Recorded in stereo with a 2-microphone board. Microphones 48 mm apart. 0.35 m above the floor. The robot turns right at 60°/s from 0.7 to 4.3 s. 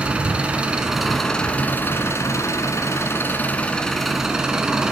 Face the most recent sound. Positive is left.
turn(degrees=-165)